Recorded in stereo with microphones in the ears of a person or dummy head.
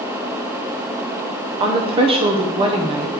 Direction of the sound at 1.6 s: 30° right (ahead or behind).